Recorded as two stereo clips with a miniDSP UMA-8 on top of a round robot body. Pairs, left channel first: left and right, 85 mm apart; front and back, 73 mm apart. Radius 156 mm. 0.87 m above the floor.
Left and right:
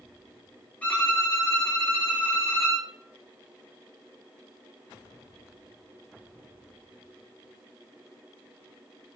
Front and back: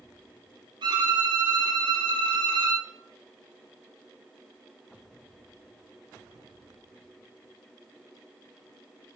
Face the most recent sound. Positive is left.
turn(degrees=165)